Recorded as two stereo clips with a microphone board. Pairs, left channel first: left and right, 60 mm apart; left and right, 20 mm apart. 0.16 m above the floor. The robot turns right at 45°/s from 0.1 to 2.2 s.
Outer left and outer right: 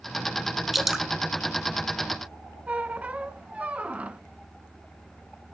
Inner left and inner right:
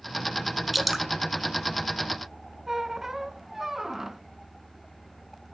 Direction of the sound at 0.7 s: 5° right (ahead or behind).